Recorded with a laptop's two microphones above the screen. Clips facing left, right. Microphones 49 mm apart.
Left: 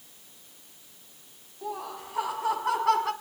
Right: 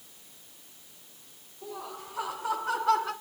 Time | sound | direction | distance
1.6 | laughter | 80° left | 8.5 m